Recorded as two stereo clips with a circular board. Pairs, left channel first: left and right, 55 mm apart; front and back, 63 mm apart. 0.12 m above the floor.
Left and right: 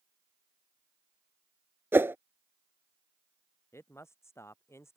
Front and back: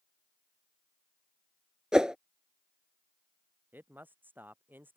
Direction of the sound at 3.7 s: 120° left.